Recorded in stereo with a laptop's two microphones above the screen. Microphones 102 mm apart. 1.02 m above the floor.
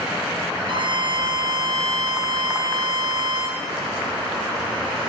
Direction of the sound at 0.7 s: 55° right (ahead or behind).